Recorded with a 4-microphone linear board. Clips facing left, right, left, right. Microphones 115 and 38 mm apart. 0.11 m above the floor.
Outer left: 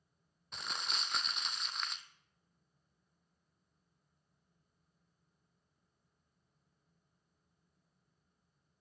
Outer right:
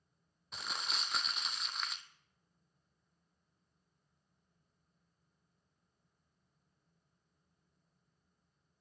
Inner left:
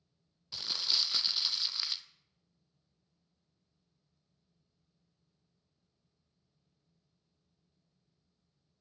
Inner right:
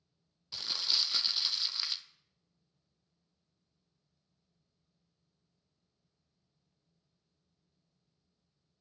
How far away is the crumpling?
About 0.5 m.